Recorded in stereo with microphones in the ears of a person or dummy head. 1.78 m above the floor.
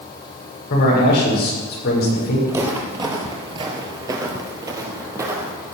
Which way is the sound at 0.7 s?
50° left (ahead or behind).